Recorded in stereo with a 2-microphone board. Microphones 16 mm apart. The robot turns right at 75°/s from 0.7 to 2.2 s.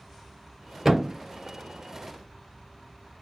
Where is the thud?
15° right (ahead or behind), 1.0 m; by 1.2 s 5° left (ahead or behind), 1.0 m.